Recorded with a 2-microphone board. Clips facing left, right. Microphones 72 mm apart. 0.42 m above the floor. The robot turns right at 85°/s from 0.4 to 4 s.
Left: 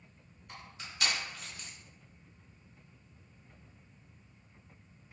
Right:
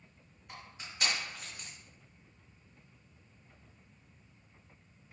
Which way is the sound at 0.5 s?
15° right (ahead or behind).